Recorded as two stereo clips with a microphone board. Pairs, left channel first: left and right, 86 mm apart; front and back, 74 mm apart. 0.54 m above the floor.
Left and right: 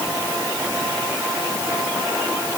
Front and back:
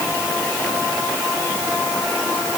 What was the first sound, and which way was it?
Only background noise.